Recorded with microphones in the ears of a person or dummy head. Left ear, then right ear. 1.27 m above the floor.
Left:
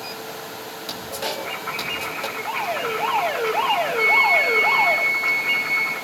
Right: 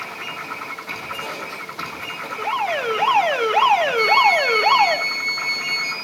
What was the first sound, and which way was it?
A man speaking, 75° left (ahead or behind).